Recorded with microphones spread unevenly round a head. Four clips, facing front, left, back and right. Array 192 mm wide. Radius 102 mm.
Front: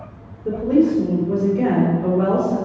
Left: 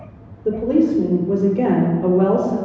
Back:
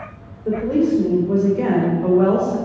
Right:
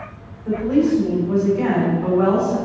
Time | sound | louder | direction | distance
0.5 | a woman speaking | left 1 dB, front 1 dB | 90° left | 3.5 m